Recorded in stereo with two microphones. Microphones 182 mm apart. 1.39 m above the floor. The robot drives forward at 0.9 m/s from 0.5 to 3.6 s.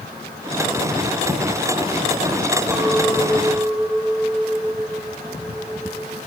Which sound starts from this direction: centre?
A clink, at 2.7 s.